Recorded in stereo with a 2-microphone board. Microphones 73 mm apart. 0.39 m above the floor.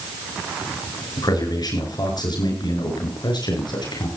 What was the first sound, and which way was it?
A man speaking, 65° left (ahead or behind).